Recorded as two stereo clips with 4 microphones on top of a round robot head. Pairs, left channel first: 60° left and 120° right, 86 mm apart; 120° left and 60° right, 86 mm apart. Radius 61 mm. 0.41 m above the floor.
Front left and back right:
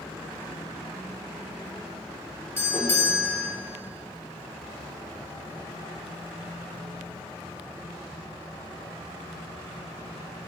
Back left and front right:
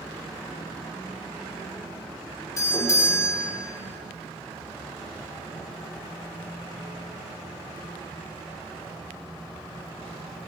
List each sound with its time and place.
2.6 s a doorbell: 105° left, 1.4 m